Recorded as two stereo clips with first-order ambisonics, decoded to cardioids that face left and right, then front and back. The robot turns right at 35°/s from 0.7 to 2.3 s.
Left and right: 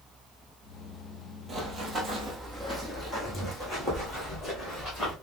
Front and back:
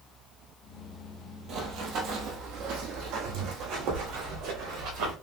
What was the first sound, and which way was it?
Running footsteps, 155° right.